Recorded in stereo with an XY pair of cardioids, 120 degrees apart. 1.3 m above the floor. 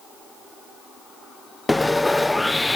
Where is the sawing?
10° left, 0.6 m.